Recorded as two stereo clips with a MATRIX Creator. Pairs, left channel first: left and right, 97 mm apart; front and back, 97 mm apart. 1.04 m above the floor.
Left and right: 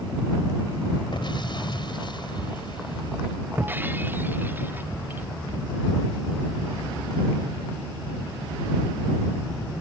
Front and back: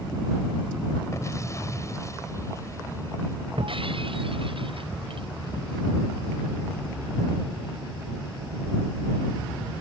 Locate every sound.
1.1 s an explosion: 55° left
3.6 s breaking glass: 160° right